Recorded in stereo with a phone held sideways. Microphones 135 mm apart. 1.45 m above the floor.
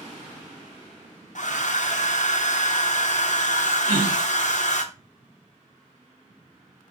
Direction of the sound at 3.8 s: 85° right.